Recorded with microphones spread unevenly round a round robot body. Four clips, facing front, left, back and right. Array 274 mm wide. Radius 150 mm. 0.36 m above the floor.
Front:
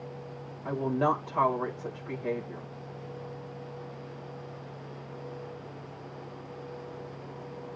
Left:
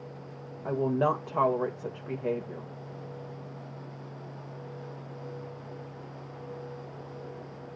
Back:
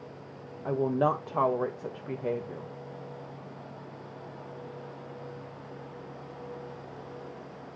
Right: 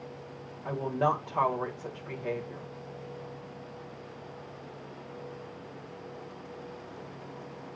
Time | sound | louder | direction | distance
0.7 | a woman speaking | left 2 dB, back 1 dB | 130° left | 1.7 m